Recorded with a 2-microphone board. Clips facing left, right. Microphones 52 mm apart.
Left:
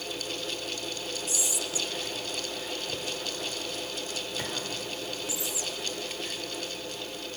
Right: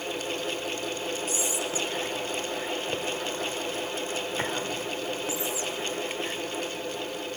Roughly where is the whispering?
Right.